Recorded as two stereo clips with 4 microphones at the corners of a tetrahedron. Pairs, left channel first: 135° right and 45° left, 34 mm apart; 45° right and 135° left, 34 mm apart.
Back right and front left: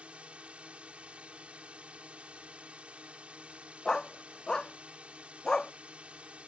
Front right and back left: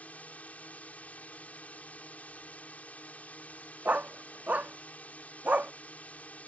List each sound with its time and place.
0.0 s a drone: 5° right
3.9 s a dog barking: 160° left